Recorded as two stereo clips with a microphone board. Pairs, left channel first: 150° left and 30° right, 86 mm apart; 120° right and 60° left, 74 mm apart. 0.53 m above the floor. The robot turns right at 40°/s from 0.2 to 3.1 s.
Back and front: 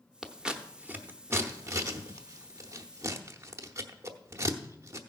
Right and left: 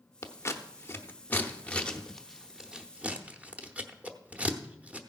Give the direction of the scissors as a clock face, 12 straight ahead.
4 o'clock.